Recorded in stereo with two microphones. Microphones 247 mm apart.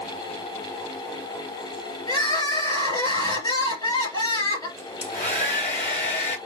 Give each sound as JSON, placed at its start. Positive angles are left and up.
{"t": 2.1, "sound": "crying", "side_deg": 15, "distance_m": 2.0}
{"t": 4.8, "sound": "a hair dryer", "side_deg": 30, "distance_m": 1.6}